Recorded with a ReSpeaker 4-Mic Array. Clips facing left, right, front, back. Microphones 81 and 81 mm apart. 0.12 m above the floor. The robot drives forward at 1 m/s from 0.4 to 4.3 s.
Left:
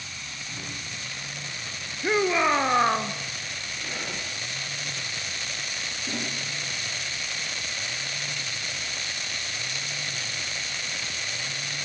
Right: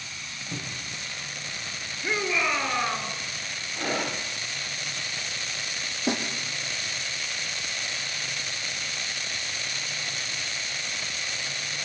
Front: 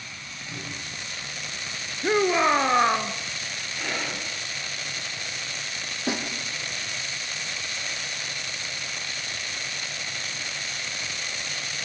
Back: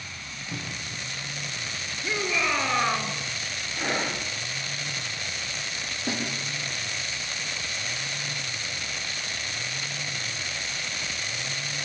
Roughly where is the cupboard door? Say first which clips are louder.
Right 3 dB, back 1 dB; right.